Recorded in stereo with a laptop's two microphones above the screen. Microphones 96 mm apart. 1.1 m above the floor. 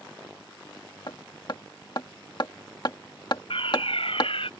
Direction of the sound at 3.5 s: 70° left (ahead or behind).